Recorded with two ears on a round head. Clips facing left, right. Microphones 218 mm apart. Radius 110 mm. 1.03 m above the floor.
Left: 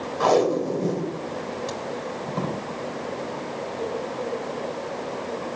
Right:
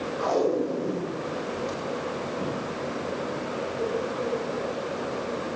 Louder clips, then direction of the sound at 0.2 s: Left 4 dB; 70° left (ahead or behind).